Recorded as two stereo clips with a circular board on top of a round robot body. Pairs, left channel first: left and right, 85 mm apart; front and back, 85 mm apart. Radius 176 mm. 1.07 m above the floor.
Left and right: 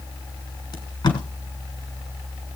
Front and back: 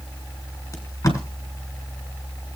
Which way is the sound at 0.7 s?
55° left.